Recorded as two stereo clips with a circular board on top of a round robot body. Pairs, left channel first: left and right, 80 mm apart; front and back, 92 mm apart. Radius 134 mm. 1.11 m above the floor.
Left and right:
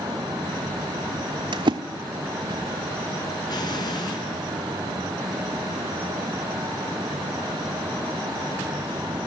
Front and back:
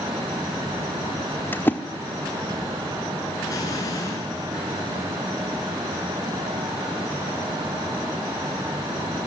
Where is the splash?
70° right, 0.9 m.